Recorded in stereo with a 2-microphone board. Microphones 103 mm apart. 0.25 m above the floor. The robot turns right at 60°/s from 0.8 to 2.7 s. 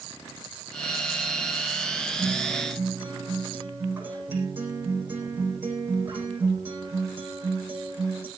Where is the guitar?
170° left, 8 m; by 8.3 s 160° right, 8 m.